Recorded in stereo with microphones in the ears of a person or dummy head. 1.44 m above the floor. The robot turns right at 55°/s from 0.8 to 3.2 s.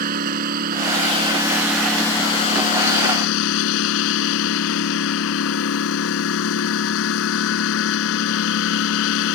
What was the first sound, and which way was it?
A lawn mower, 50° right.